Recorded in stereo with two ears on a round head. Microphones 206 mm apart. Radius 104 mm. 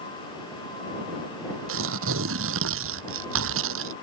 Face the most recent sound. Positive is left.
turn(degrees=-65)  # may be behind; listen again after turning